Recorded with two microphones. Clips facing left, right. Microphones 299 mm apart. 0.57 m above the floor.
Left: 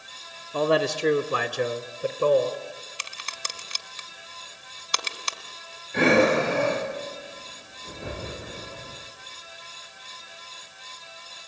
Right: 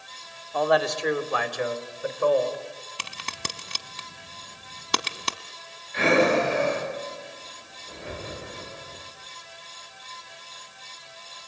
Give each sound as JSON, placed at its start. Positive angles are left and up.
{"t": 0.5, "sound": "a man speaking", "side_deg": 35, "distance_m": 1.2}
{"t": 3.0, "sound": "a crack", "side_deg": -75, "distance_m": 1.0}
{"t": 5.9, "sound": "breathing", "side_deg": 60, "distance_m": 9.5}